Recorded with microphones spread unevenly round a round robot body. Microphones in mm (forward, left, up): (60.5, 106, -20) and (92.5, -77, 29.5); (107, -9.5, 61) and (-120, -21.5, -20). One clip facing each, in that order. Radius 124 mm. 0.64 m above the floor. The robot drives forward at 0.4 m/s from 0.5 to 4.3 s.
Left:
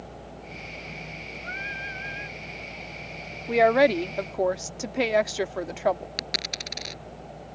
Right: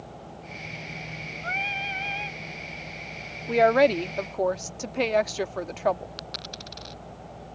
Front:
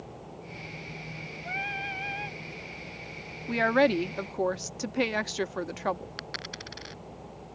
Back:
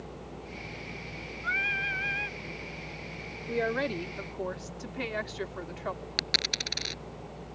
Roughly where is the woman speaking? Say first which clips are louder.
Even, front 6 dB; ahead.